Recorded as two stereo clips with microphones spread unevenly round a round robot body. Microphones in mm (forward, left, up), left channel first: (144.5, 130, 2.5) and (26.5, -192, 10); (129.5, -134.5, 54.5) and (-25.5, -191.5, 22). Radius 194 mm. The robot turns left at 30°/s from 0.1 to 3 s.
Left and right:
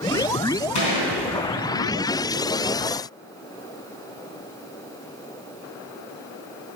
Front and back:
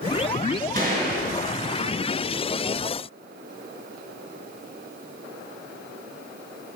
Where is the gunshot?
85° left, 3.5 m; by 1.2 s 70° left, 3.5 m.